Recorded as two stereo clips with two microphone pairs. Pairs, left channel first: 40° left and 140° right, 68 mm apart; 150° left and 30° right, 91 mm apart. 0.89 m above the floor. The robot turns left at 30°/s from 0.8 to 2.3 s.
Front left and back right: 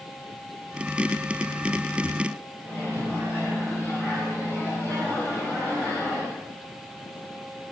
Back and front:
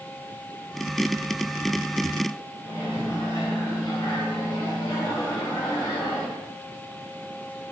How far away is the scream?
No scream in this recording.